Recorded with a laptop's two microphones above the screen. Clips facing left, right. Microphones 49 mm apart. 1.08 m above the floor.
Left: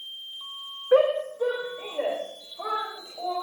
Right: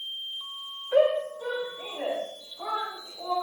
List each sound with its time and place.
0.9 s a shout: 85° left, 2.5 m; by 3.3 s 45° left (ahead or behind), 5 m